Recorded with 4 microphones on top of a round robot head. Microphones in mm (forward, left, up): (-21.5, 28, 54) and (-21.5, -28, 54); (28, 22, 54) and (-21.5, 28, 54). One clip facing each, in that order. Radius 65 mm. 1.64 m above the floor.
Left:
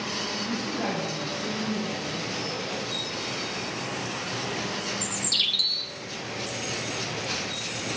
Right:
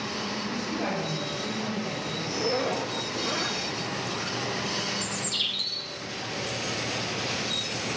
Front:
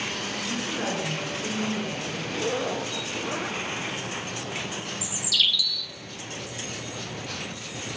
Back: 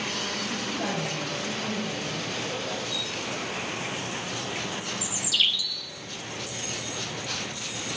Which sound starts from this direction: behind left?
A bird, at 5.0 s.